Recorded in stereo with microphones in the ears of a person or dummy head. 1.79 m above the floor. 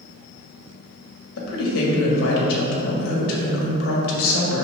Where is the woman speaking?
75° left (ahead or behind), 1.9 m.